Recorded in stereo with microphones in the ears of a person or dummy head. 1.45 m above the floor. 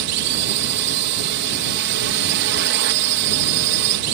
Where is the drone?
60° right (ahead or behind).